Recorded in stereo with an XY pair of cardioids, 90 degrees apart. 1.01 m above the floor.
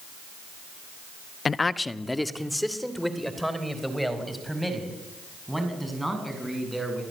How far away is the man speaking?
About 0.9 m.